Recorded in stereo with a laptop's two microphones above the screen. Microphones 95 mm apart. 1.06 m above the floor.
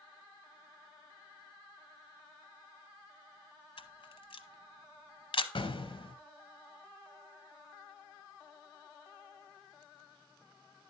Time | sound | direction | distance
3.8 | a camera shutter | 70° left (ahead or behind) | 0.8 m
5.5 | an explosion | 65° left (ahead or behind) | 0.8 m